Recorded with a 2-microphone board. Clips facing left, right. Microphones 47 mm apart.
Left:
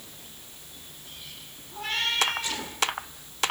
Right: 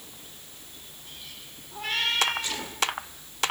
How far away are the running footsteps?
I don't hear running footsteps.